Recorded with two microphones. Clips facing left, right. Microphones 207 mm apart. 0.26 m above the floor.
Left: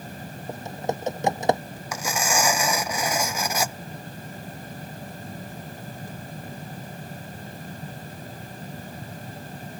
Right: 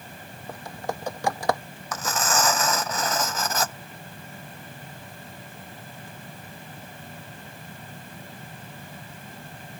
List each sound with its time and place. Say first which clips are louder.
0.5 s typing on a keyboard: left 4 dB; 20° left (ahead or behind)
1.9 s tearing paper: even; 10° left (ahead or behind)